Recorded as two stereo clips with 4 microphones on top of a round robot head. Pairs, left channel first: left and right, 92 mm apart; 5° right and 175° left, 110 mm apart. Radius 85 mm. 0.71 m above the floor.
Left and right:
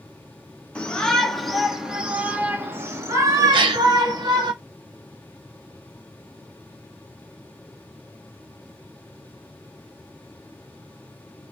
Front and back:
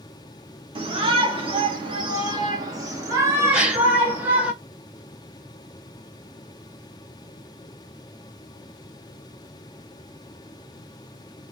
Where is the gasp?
105° right, 0.5 m.